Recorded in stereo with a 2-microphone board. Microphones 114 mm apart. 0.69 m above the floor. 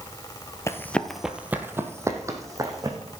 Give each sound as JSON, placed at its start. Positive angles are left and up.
{"t": 0.7, "sound": "running footsteps", "side_deg": 25, "distance_m": 0.7}